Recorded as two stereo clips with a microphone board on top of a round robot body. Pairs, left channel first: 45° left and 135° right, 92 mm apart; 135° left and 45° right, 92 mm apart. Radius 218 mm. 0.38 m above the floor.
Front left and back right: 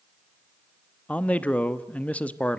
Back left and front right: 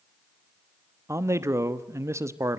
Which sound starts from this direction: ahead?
A man speaking, at 1.1 s.